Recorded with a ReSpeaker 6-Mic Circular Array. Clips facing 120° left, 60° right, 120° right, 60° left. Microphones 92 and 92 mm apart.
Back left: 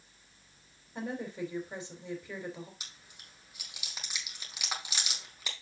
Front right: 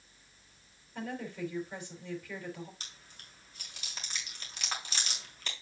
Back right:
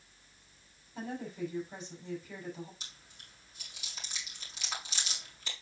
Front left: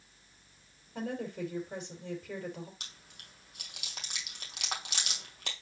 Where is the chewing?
40° left, 2 m.